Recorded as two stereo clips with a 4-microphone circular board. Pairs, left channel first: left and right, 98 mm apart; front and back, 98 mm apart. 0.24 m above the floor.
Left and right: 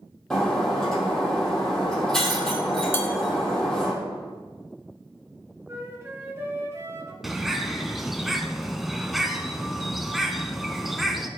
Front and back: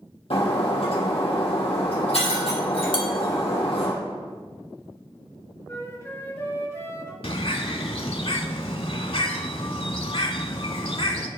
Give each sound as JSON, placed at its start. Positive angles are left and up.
{"t": 0.3, "sound": "breaking glass", "azimuth_deg": 5, "distance_m": 3.0}
{"t": 2.9, "sound": "dishes clattering", "azimuth_deg": 25, "distance_m": 1.5}
{"t": 5.7, "sound": "a flute", "azimuth_deg": -45, "distance_m": 1.8}
{"t": 7.2, "sound": "a bird", "azimuth_deg": 0, "distance_m": 0.7}